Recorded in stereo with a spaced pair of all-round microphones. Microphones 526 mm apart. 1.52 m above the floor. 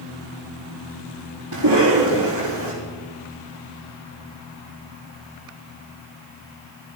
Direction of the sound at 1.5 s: 45° right (ahead or behind).